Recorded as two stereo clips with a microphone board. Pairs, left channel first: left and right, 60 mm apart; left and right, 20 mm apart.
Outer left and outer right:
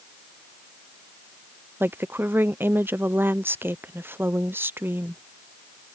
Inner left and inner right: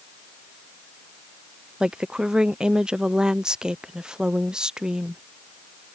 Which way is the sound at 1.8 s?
35° right (ahead or behind).